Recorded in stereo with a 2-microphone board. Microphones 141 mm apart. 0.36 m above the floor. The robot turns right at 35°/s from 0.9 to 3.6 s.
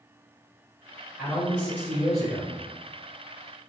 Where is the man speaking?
Straight ahead, 1.1 m; by 2.6 s 50° left, 1.1 m.